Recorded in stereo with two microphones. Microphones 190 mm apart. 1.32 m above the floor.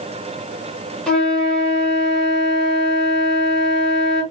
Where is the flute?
5° left (ahead or behind), 1.8 m.